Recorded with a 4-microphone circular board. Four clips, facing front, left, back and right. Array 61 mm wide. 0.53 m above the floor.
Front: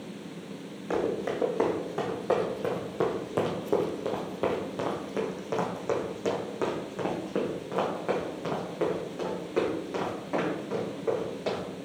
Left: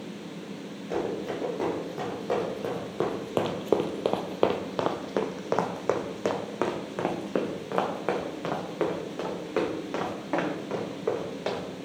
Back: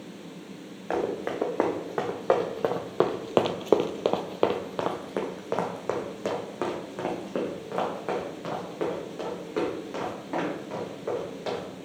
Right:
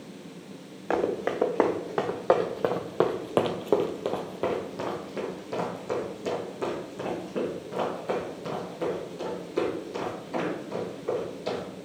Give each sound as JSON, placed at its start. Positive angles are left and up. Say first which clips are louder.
{"t": 0.9, "sound": "running footsteps", "louder": "right 4 dB, even", "azimuth_deg": -115, "distance_m": 1.9}